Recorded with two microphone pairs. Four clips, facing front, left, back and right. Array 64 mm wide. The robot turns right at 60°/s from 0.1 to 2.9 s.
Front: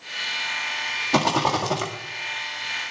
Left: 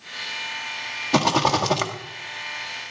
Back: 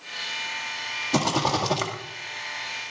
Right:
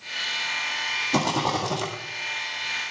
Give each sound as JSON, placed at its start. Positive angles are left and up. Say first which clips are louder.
{"t": 1.1, "sound": "a rattle", "louder": "left 6 dB, front 3 dB", "azimuth_deg": 40, "distance_m": 2.0}